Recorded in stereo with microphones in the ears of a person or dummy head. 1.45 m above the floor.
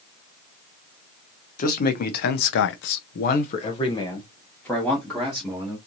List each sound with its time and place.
1.6 s a man speaking: 50° left (ahead or behind), 0.9 m; by 5.8 s 5° right (ahead or behind), 1.5 m